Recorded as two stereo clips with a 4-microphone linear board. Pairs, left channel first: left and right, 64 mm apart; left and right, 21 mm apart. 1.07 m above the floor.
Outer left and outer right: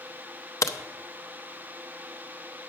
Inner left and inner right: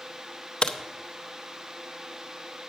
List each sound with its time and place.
0.6 s a crack: 55° left (ahead or behind), 0.7 m